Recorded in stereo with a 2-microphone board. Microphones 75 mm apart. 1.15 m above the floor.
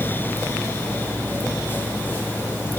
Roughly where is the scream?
No scream in this recording.